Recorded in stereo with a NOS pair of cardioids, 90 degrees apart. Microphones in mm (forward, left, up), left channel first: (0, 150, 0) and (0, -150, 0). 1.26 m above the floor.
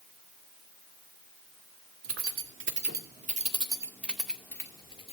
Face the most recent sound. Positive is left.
turn(degrees=20)